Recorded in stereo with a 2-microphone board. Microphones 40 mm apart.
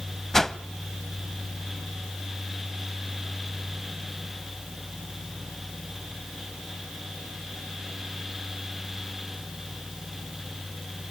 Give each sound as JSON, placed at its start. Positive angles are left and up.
{"t": 0.3, "sound": "a whoosh", "side_deg": 10, "distance_m": 0.5}